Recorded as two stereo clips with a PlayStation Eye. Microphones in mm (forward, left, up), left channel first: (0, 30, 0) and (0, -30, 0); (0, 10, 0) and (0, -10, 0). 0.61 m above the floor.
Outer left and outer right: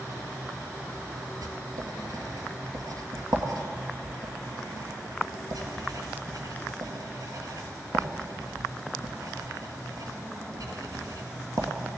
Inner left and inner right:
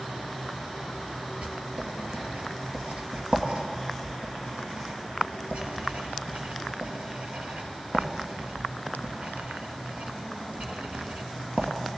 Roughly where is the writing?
Right.